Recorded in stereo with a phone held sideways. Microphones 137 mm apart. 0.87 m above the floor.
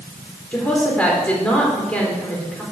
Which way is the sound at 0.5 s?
10° left (ahead or behind).